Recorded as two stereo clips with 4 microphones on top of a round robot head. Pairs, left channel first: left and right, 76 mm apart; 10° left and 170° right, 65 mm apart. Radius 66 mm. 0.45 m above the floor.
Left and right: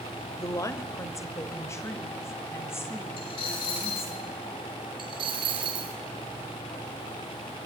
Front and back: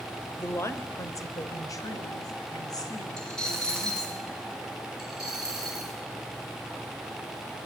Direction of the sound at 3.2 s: 90° left.